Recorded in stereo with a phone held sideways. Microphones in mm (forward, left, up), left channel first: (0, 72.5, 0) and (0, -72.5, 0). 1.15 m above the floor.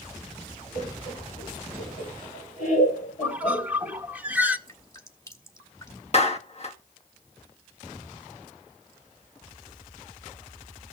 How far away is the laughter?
About 3.5 m.